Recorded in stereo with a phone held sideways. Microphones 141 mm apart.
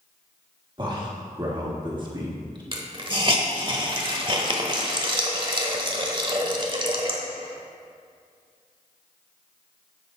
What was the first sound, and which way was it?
A man speaking, 35° right (ahead or behind).